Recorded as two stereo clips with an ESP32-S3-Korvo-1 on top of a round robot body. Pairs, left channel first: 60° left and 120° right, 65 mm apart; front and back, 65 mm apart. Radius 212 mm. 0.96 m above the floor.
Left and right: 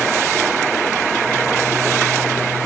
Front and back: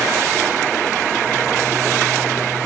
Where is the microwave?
No microwave in this recording.